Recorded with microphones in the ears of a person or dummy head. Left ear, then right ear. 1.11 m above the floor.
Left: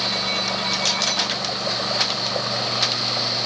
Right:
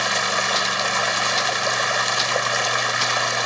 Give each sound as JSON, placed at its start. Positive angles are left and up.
{"t": 0.0, "sound": "running water", "side_deg": -70}